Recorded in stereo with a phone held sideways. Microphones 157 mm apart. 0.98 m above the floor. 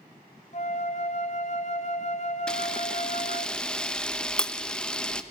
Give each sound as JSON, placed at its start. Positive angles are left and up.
{"t": 0.5, "sound": "a flute", "side_deg": 45, "distance_m": 1.2}
{"t": 2.5, "sound": "a camera shutter", "side_deg": 5, "distance_m": 0.9}